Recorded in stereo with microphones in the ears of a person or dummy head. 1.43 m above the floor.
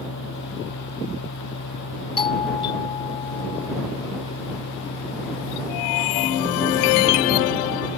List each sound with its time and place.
0.0 s a machine running: 65° left (ahead or behind)
2.2 s a doorbell: 35° left (ahead or behind)